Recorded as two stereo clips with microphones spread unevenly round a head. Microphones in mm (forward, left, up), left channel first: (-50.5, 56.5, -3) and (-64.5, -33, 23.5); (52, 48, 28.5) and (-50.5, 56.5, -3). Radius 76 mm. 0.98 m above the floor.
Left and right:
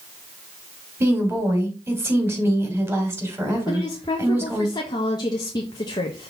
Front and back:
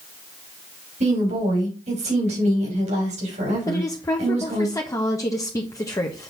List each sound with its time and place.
1.0 s a woman speaking: 165° right, 3.5 m
3.7 s a woman speaking: 60° left, 1.2 m